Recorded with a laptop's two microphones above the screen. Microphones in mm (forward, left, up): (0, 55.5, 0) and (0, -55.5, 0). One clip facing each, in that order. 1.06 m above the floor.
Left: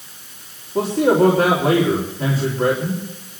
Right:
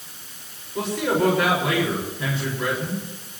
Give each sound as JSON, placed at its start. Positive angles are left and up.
{"t": 0.8, "sound": "a man speaking", "side_deg": 40, "distance_m": 3.0}